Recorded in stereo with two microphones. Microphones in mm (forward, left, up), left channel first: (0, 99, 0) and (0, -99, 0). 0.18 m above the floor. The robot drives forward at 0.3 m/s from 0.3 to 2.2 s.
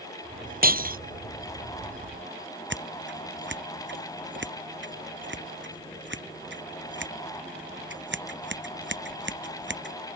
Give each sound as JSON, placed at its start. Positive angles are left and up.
{"t": 0.6, "sound": "breaking glass", "side_deg": -45}
{"t": 2.7, "sound": "scissors", "side_deg": -60}